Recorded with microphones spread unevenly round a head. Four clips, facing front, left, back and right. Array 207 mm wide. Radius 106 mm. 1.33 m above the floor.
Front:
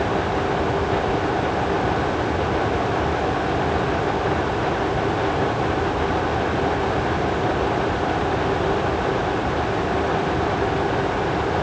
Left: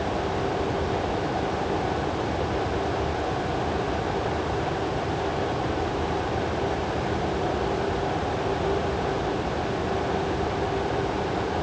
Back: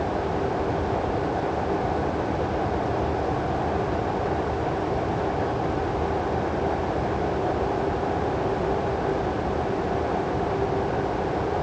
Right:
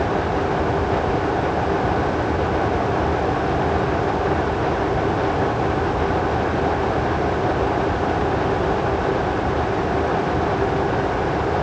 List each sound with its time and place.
Only background noise.